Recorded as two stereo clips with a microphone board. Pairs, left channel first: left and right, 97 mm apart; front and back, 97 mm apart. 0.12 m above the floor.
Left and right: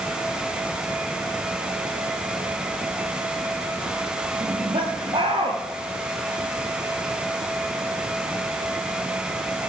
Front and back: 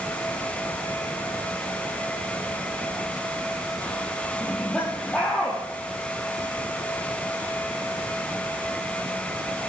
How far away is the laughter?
About 3.5 m.